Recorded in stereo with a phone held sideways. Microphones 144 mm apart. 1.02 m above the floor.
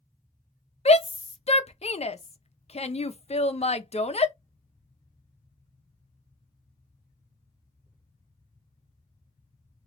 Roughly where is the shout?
Left.